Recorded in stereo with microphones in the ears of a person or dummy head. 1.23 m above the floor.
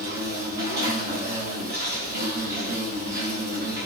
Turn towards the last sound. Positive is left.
turn(degrees=-50)  # may be behind; listen again after turning